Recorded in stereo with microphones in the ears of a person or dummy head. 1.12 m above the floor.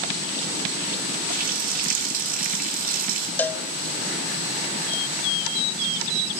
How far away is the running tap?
About 2 m.